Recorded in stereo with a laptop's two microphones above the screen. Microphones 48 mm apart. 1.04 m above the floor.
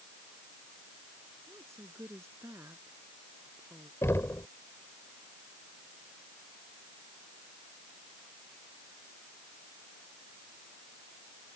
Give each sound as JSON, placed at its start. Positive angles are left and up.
{"t": 1.5, "sound": "a woman speaking", "side_deg": -75}
{"t": 4.0, "sound": "knocking", "side_deg": 70}